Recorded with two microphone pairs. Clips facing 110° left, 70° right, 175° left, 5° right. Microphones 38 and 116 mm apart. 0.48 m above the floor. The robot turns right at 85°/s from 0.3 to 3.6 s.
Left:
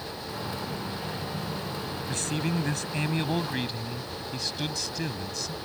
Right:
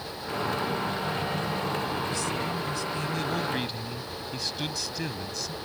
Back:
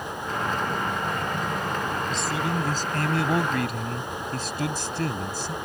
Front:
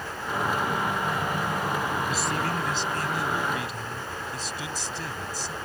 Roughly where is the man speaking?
Left.